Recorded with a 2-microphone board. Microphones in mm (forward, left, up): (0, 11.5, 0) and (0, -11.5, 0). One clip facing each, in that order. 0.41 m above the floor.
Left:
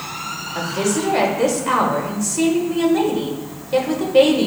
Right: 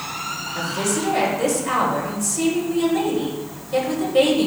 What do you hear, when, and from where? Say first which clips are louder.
0.6 s a woman speaking: left 3 dB; 25° left (ahead or behind), 1.7 m